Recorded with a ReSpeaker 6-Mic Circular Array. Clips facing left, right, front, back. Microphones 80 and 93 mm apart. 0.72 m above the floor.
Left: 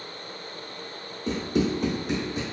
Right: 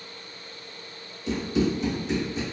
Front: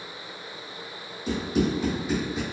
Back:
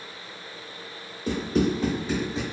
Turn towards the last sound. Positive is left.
turn(degrees=115)